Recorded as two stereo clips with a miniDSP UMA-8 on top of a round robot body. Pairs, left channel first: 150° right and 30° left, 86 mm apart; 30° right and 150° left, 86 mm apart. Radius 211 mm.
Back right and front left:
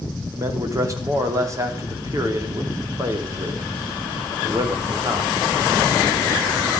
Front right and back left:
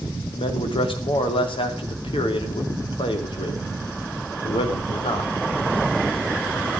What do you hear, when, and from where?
0.3 s a man speaking: 20° right, 2.5 m